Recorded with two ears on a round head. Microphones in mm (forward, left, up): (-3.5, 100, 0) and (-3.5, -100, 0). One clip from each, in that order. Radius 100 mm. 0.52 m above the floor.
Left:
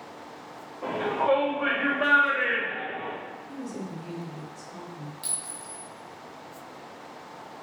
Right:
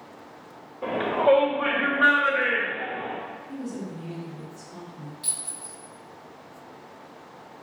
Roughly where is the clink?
Left.